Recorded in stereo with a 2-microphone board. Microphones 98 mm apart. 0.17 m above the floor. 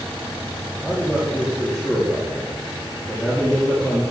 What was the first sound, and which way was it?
A man speaking, centre (ahead or behind).